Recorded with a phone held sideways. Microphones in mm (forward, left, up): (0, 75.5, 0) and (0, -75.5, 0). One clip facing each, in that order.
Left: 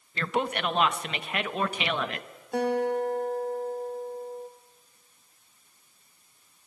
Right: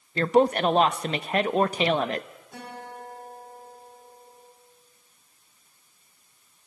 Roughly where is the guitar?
Left.